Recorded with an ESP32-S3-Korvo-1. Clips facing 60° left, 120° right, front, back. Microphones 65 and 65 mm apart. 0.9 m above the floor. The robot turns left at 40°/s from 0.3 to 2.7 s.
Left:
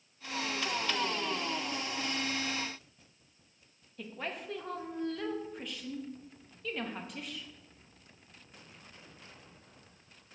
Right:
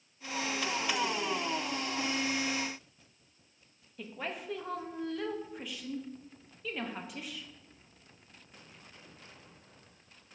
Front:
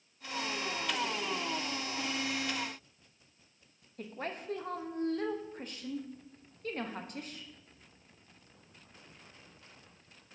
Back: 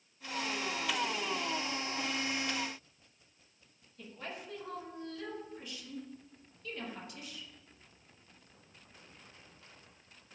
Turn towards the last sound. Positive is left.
turn(degrees=-35)